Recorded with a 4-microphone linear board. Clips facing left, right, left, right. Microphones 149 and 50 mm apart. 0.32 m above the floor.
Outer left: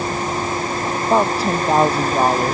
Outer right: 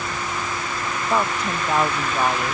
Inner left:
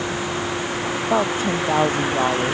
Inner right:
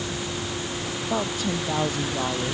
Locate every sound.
0.0 s a vehicle: 35° left (ahead or behind); by 2.5 s 40° left (ahead or behind)
1.1 s a woman speaking: 30° left (ahead or behind)